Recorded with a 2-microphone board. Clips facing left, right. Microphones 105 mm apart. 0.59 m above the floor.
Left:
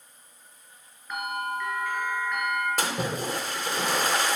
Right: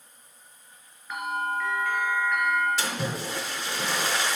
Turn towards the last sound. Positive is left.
turn(degrees=45)  # may be behind; listen again after turning